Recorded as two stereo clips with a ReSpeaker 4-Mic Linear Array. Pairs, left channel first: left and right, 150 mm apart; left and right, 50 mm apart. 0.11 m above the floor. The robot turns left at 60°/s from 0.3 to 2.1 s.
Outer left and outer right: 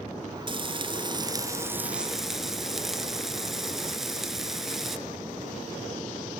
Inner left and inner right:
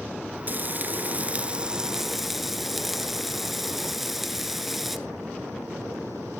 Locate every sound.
0.5 s frying: 80° right, 0.9 m; by 5.0 s 175° right, 0.9 m